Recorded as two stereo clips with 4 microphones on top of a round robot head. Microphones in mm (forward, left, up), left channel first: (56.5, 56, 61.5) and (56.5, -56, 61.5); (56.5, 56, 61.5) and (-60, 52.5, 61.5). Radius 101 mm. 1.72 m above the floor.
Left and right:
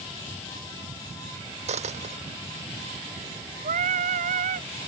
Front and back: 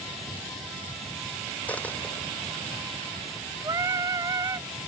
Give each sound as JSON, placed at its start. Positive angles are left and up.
{"t": 1.7, "sound": "a dropped coin", "azimuth_deg": -80}
{"t": 3.6, "sound": "singing", "azimuth_deg": -105}